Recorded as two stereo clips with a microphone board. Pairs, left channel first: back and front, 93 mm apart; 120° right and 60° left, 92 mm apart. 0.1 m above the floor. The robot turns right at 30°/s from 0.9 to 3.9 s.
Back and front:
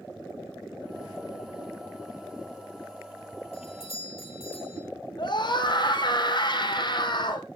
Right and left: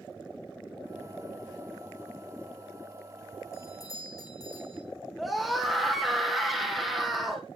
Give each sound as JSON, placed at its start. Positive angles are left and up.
{"t": 3.5, "sound": "a doorbell", "azimuth_deg": 180, "distance_m": 7.0}
{"t": 5.2, "sound": "a scream", "azimuth_deg": 155, "distance_m": 4.0}